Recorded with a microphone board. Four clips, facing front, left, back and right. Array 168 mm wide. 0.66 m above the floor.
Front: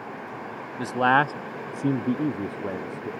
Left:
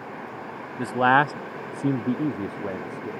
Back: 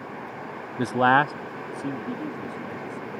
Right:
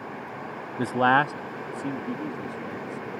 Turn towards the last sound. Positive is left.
turn(degrees=45)